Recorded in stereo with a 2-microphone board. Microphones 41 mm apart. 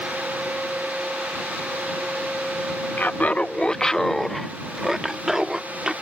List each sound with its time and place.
3.0 s laughter: 50° left (ahead or behind); by 5.9 s 20° right (ahead or behind)